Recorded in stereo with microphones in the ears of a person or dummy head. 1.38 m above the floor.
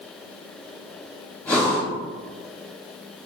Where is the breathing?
10° left (ahead or behind), 1.2 m.